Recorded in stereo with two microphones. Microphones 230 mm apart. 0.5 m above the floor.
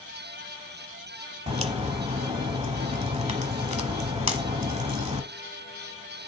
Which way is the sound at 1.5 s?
30° right (ahead or behind).